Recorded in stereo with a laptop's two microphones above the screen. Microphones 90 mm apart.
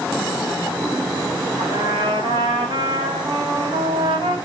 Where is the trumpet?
70° right (ahead or behind), 8 m.